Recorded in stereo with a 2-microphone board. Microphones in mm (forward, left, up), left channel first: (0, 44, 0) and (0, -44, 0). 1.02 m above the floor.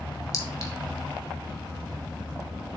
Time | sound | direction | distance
0.3 | a clink | 35° left (ahead or behind) | 1.2 m